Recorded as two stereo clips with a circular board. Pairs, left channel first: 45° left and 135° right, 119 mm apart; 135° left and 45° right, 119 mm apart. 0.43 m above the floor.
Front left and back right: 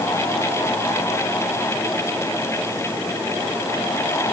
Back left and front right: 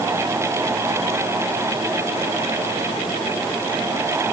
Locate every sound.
Only background noise.